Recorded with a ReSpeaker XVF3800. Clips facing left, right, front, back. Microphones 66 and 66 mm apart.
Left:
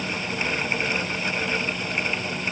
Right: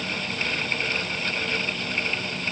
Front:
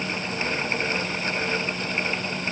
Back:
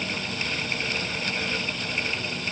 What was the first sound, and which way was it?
Only background noise.